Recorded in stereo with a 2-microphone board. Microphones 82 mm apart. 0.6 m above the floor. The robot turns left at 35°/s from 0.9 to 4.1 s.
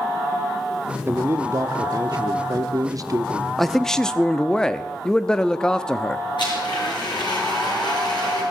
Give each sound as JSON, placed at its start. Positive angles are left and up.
{"t": 1.1, "sound": "a man speaking", "azimuth_deg": -40, "distance_m": 0.9}
{"t": 3.6, "sound": "a man speaking", "side_deg": 0, "distance_m": 0.5}
{"t": 6.4, "sound": "a blender", "side_deg": 70, "distance_m": 6.5}